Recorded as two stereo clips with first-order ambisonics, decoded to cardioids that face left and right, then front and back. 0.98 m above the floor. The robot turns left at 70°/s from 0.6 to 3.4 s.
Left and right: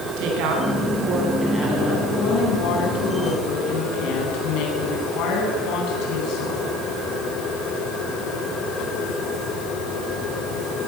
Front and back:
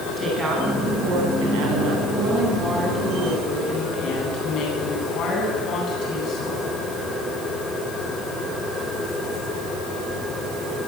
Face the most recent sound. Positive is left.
turn(degrees=55)